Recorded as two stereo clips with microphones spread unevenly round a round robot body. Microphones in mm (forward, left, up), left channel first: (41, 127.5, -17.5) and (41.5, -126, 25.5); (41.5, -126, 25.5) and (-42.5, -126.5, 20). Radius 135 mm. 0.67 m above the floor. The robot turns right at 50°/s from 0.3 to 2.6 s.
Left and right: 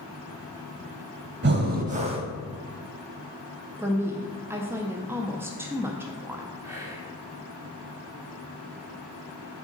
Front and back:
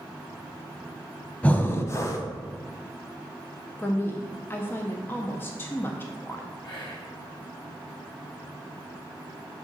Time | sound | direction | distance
1.4 | breathing | 70° right | 0.7 m
3.8 | a woman speaking | 5° left | 0.5 m
6.6 | whispering | 5° right | 2 m